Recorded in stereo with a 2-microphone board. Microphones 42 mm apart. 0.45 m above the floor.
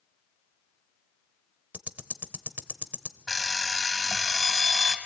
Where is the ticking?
45° right (ahead or behind), 0.7 m.